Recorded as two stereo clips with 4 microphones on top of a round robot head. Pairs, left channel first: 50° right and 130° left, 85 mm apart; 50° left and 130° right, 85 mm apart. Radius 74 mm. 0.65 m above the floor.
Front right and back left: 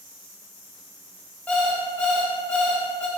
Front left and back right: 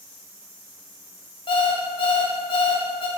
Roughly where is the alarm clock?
Ahead left.